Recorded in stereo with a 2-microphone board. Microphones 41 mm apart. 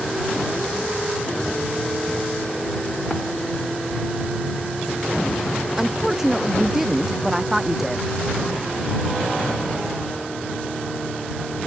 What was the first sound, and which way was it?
A woman speaking, 10° right (ahead or behind).